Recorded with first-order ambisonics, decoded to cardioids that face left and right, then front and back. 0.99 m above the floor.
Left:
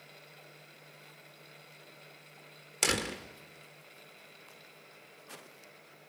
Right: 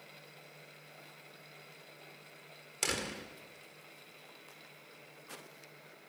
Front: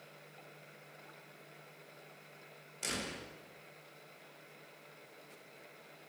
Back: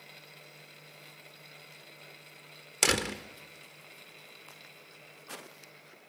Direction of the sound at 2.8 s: 160° left.